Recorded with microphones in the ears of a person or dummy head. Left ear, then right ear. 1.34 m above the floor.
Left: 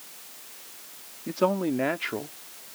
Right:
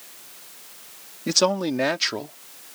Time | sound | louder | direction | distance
1.3 | a man speaking | right 4 dB | 85° right | ?